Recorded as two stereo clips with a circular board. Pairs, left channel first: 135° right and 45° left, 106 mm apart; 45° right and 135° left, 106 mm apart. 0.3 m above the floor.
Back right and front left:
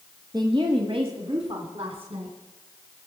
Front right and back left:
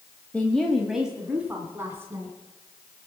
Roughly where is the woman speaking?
Ahead left.